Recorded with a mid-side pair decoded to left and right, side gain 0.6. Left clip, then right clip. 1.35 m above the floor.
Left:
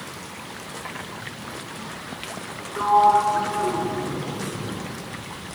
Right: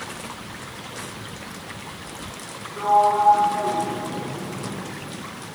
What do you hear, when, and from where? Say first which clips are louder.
2.8 s a sliding door: left 1 dB; 35° left, 5 m